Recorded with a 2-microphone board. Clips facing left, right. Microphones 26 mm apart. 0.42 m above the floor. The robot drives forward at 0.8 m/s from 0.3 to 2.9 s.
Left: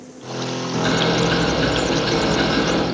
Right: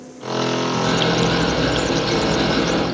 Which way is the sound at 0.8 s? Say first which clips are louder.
Left 2 dB; 65° left (ahead or behind).